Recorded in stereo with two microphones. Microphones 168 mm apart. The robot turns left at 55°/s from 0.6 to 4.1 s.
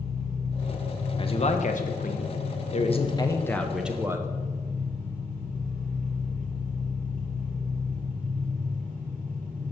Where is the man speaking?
140° left, 1.0 m; by 4.3 s 20° right, 1.0 m.